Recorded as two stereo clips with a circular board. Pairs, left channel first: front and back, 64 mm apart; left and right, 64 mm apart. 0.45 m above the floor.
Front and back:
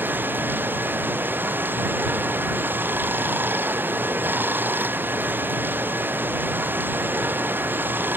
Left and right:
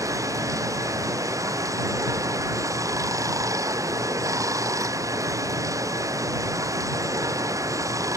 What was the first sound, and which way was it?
Running water, 120° right.